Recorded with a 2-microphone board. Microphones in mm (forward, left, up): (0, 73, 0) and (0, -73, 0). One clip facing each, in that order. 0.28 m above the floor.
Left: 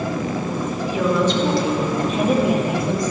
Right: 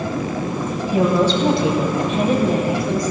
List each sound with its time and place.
0.9 s a woman speaking: 45° right (ahead or behind), 1.6 m; by 3.1 s 35° left (ahead or behind), 1.7 m